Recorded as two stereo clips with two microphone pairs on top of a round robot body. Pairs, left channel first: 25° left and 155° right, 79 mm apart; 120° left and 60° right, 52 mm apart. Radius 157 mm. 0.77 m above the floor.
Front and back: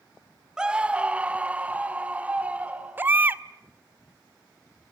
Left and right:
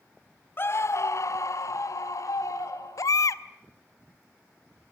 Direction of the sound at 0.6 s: 125° left.